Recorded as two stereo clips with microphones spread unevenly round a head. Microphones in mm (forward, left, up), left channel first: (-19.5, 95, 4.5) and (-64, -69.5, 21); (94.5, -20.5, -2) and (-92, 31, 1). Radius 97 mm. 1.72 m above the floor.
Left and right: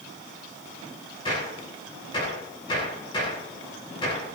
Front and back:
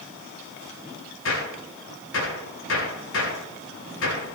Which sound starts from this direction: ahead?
A gunshot, at 1.2 s.